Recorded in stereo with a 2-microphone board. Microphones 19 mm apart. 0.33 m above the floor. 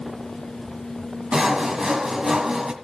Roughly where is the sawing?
Right.